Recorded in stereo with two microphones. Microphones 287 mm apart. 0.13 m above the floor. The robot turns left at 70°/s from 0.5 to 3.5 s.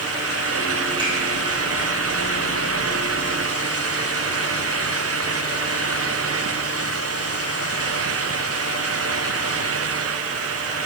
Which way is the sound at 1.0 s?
15° right (ahead or behind).